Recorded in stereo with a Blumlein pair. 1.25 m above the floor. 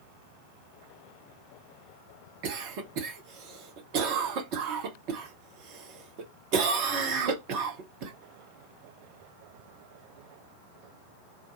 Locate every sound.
2.4 s a cough: 40° right, 0.9 m